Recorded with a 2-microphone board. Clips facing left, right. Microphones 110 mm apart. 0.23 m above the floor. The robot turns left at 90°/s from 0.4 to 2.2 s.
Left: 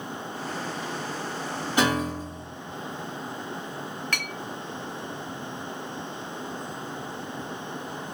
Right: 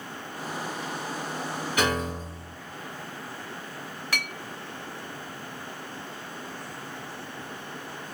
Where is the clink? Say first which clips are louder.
Right 3 dB; 10° right (ahead or behind), 0.7 m.